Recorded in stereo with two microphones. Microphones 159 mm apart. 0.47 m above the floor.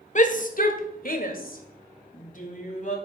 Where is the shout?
50° left (ahead or behind), 1.3 m.